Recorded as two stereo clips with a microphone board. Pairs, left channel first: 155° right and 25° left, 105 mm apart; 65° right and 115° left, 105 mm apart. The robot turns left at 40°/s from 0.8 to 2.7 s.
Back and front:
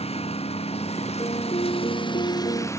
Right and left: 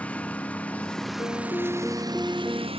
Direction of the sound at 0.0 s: 145° right.